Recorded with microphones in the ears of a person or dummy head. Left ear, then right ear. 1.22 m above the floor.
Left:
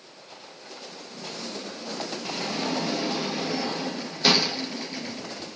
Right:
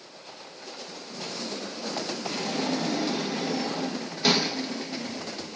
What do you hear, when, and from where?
2.2 s a sliding door: 20° left (ahead or behind), 1.1 m